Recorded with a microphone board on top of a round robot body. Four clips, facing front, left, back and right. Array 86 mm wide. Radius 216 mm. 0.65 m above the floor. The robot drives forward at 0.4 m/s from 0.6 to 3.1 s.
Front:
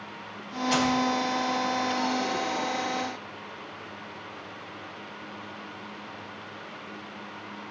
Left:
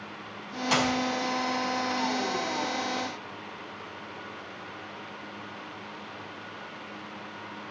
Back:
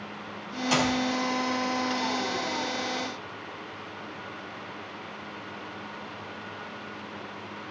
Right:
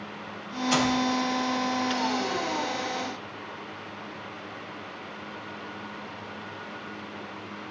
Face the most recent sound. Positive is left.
turn(degrees=120)